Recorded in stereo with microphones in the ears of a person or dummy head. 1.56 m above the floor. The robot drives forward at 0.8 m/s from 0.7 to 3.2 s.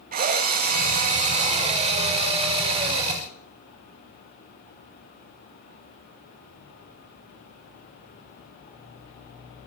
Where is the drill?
45° right (ahead or behind), 2 m; by 3.2 s 25° right (ahead or behind), 4 m.